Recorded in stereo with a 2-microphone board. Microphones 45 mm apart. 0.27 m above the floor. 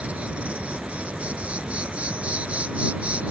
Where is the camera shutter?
I don't hear a camera shutter.